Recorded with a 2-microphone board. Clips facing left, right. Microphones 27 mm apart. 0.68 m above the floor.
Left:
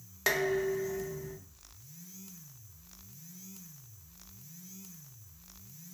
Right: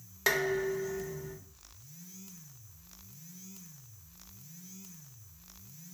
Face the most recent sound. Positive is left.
turn(degrees=0)  # may be behind; listen again after turning